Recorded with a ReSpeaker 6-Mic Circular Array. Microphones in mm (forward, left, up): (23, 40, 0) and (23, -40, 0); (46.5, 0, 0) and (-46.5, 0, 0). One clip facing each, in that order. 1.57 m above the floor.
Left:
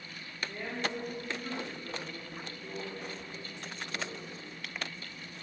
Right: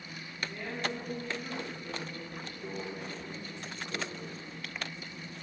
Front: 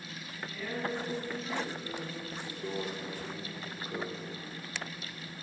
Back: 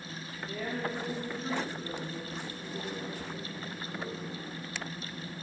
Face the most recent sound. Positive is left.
turn(degrees=-30)